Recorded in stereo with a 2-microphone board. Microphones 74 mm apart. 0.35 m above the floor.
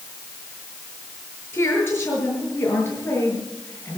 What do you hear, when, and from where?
1.5 s a woman speaking: 30° left (ahead or behind), 7 m